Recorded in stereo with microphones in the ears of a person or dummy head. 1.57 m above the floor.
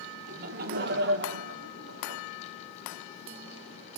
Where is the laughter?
50° right (ahead or behind), 1.4 m; by 2.2 s 80° right, 1.7 m.